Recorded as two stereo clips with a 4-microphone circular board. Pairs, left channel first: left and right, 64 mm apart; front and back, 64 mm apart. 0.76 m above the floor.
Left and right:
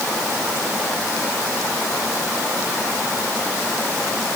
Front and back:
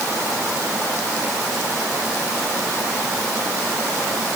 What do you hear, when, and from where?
Only background noise.